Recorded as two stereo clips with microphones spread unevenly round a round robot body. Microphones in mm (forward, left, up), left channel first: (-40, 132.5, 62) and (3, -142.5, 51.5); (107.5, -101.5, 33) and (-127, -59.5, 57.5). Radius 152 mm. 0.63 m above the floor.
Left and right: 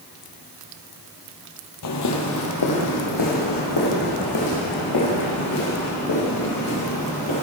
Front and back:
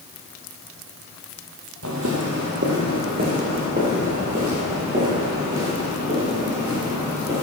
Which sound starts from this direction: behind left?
Footsteps, at 1.8 s.